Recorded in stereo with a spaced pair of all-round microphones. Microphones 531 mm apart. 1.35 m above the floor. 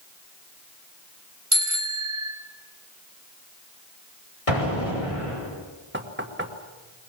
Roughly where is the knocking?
Right.